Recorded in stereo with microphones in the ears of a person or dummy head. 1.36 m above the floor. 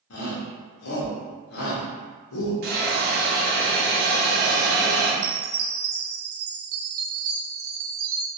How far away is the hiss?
About 0.9 m.